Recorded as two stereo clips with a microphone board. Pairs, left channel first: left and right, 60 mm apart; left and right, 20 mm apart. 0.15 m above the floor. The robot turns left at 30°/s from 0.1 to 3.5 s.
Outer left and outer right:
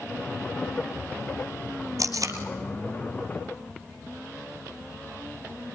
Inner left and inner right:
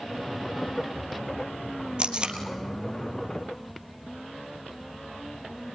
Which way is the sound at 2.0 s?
70° right (ahead or behind).